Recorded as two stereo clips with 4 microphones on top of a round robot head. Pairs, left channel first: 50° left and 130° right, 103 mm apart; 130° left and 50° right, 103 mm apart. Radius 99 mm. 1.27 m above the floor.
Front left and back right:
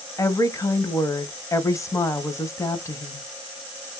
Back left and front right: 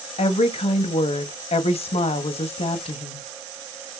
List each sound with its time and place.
0.2 s a woman speaking: 110° left, 0.7 m